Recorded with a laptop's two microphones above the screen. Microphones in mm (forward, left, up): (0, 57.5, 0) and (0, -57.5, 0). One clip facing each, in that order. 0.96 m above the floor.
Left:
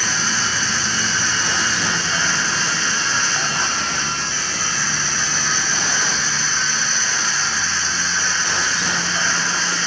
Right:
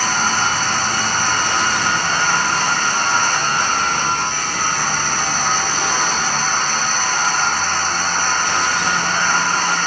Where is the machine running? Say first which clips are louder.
Right 6 dB; 55° right (ahead or behind).